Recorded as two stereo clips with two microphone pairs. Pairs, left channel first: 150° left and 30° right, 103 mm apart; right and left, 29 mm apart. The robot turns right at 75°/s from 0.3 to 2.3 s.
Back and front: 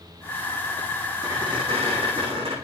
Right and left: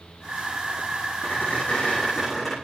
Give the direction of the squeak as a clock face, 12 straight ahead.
3 o'clock.